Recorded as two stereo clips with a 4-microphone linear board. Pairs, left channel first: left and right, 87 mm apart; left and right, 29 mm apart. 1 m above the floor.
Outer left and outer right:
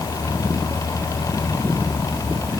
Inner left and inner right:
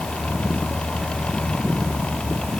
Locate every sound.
Only background noise.